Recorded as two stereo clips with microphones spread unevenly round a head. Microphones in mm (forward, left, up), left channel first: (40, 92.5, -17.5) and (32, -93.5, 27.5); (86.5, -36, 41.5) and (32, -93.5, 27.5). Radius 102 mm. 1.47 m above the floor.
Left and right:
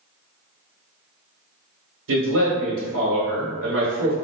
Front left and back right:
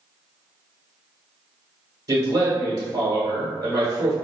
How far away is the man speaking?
About 1.1 m.